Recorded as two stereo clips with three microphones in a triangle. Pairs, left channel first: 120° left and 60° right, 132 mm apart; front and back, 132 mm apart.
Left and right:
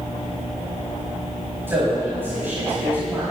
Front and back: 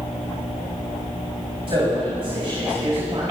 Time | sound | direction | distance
1.7 | a man speaking | 135° right | 5.5 m